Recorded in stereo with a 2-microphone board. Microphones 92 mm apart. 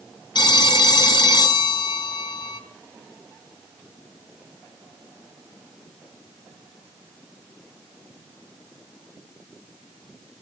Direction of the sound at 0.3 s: 50° left (ahead or behind).